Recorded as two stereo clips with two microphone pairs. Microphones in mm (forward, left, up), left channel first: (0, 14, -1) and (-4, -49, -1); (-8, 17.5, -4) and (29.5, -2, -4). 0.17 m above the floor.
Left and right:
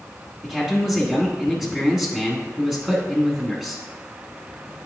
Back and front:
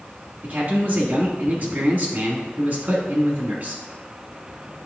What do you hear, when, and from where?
0.4 s a man speaking: 20° right, 1.3 m